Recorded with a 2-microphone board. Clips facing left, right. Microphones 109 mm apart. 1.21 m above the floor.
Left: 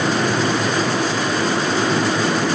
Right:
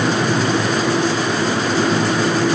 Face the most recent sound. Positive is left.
No sound to turn to.